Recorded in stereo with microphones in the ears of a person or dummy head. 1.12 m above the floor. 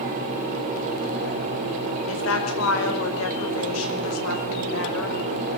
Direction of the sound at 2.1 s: 80° left.